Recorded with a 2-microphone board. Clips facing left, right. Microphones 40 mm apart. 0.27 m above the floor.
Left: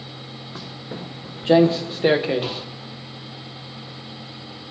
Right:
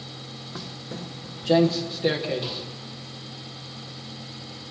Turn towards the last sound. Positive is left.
turn(degrees=40)  # may be behind; listen again after turning